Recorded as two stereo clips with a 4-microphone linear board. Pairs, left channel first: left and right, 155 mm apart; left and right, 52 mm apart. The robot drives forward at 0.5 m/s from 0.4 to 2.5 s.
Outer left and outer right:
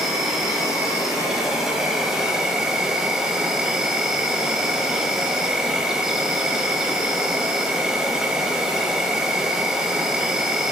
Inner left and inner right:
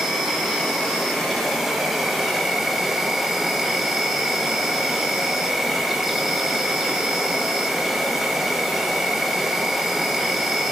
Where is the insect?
5° right (ahead or behind), 3 m.